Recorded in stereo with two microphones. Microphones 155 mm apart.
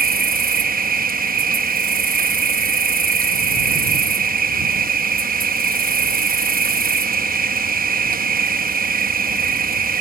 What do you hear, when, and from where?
0.0 s an insect: 60° right (ahead or behind)